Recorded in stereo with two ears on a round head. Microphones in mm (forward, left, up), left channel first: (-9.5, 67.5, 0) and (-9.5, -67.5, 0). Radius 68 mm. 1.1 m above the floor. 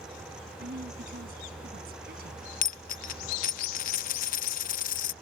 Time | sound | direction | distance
0.6 | a woman speaking | 70° right (ahead or behind) | ?
2.6 | a dropped coin | 55° left (ahead or behind) | ?